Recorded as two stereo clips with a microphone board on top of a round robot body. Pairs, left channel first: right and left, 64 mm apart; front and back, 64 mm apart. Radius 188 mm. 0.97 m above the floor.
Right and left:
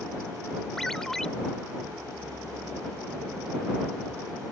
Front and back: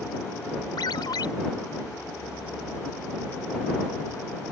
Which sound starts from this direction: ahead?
A ringtone, at 0.8 s.